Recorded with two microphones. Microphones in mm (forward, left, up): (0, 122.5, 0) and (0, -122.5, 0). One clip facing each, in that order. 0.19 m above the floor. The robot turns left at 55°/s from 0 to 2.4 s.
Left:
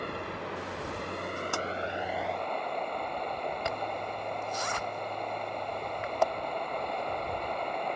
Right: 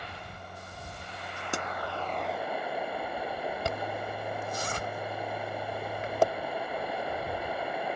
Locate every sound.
0.0 s running water: 125° left; by 8.0 s 5° right
1.5 s a pop: 20° right (ahead or behind); by 1.7 s 25° right (ahead or behind)
3.6 s a zipper: 35° right (ahead or behind)